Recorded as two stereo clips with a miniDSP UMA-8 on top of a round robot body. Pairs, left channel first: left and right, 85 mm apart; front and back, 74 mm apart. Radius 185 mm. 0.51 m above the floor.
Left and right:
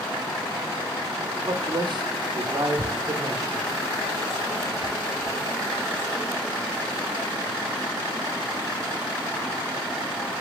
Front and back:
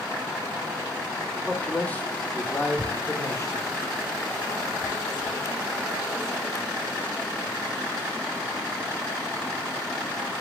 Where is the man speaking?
80° right, 2.5 m; by 3.7 s 40° right, 3 m.